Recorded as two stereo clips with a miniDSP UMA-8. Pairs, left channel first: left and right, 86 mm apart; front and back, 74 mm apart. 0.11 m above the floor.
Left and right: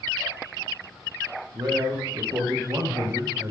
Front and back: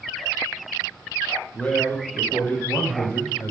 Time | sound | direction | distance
1.5 | a man speaking | 70° right | 4.5 m